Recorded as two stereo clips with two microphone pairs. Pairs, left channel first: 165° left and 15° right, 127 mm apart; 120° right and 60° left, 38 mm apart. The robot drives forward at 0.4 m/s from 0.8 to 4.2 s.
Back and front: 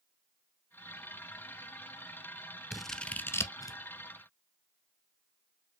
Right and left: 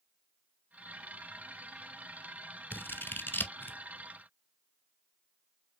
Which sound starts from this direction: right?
Scissors, at 2.7 s.